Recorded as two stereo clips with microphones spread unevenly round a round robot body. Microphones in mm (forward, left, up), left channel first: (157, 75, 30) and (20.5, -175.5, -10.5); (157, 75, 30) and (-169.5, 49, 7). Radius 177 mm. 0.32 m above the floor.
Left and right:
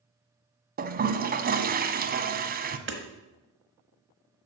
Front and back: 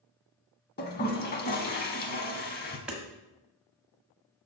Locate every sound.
0.8 s a toilet flushing: 60° right, 0.7 m
2.9 s hammering: 90° right, 1.2 m